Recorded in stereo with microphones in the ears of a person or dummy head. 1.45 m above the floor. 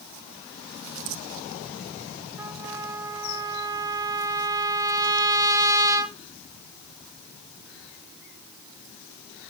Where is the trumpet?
20° right (ahead or behind), 0.9 m.